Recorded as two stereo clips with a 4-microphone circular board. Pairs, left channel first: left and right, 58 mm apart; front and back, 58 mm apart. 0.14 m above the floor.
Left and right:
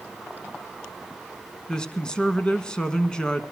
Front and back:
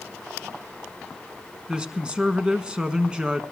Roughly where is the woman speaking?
Behind left.